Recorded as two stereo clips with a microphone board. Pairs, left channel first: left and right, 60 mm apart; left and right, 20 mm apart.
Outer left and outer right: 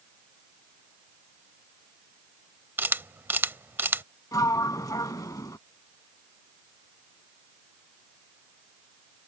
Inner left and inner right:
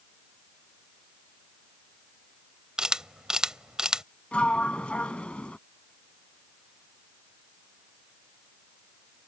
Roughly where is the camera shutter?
Right.